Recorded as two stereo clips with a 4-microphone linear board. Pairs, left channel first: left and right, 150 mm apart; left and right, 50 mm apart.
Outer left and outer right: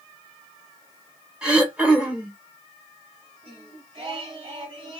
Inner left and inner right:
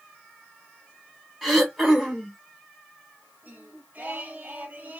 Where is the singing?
40° right (ahead or behind), 1.7 m.